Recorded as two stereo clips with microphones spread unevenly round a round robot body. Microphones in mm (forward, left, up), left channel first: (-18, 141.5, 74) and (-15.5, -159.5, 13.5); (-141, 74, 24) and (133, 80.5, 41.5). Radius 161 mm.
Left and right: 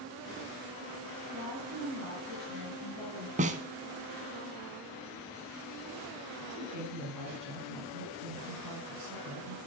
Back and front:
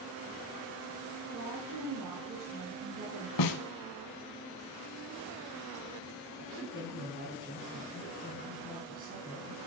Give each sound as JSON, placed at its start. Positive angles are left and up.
{"t": 1.3, "sound": "a woman speaking", "azimuth_deg": -25, "distance_m": 4.5}
{"t": 3.4, "sound": "a snare drum", "azimuth_deg": -160, "distance_m": 0.8}
{"t": 6.4, "sound": "a woman speaking", "azimuth_deg": -60, "distance_m": 4.0}